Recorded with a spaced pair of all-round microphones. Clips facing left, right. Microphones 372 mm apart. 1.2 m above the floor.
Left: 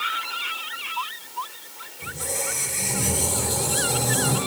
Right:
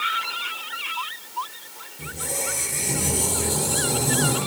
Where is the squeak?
65° right (ahead or behind), 8 m.